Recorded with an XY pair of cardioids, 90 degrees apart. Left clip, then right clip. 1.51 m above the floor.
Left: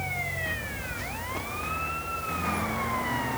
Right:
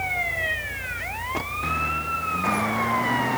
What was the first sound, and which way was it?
Only background noise.